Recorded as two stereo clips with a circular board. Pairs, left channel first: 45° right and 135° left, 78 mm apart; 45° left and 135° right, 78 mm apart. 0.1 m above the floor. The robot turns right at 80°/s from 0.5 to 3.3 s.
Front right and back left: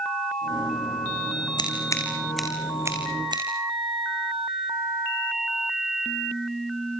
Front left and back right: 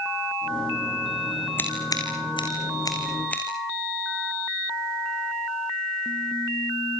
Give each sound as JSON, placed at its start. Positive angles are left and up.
{"t": 1.6, "sound": "scissors", "azimuth_deg": -20, "distance_m": 5.5}